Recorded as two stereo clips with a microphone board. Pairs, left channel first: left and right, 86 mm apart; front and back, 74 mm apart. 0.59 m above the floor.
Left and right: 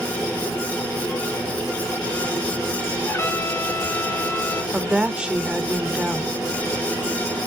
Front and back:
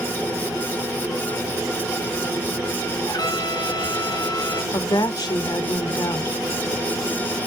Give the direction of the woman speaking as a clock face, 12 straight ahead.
12 o'clock.